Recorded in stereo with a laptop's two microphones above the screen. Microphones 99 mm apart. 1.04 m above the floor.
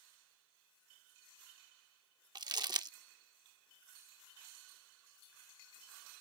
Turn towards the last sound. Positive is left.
turn(degrees=-45)  # may be behind; listen again after turning